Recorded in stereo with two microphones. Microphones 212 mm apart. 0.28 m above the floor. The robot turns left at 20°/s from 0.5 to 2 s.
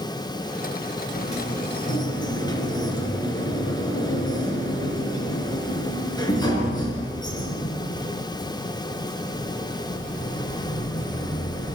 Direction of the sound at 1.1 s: 35° left (ahead or behind).